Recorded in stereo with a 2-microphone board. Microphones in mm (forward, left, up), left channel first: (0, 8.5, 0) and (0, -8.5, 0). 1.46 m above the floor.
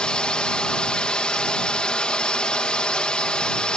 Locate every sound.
0.0 s a drone: 65° left (ahead or behind)